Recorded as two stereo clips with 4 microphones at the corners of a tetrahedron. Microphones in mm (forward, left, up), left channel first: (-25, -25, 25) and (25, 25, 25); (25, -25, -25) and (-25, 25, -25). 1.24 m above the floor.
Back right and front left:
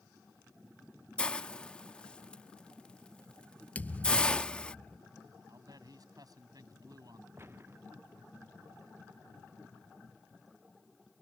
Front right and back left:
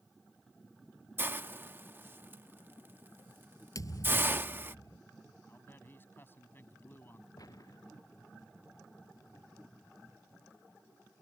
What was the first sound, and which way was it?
A hiss, 165° left.